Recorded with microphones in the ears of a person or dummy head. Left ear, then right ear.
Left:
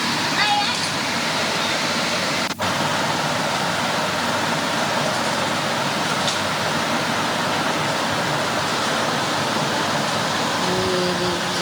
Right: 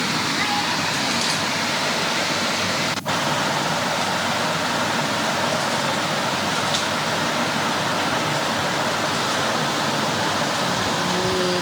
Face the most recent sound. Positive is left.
turn(degrees=35)  # may be behind; listen again after turning